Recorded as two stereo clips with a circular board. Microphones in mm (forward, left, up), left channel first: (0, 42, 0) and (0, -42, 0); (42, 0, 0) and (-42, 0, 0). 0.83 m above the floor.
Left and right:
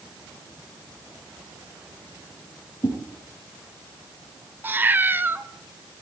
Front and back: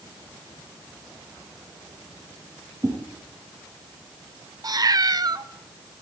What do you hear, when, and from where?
2.8 s a whoosh: 135° left, 9.5 m
4.6 s a cat meowing: 150° right, 0.8 m